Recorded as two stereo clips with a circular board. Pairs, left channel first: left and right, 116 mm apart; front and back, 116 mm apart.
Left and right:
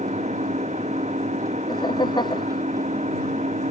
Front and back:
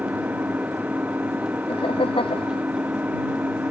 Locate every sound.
0.0 s an engine running: 105° right
1.7 s laughter: 40° left